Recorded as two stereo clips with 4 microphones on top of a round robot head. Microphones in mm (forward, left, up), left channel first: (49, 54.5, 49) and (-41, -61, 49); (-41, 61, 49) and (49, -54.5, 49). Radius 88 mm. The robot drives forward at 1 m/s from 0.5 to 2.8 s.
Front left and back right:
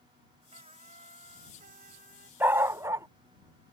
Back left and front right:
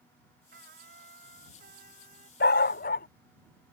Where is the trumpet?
80° right; by 2.3 s 95° right.